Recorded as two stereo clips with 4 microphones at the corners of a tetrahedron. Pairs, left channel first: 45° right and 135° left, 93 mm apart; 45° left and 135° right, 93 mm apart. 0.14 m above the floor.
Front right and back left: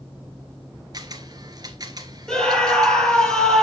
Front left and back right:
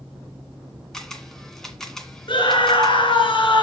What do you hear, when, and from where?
0.9 s a camera shutter: 130° left, 1.6 m
2.3 s a scream: 40° left, 3 m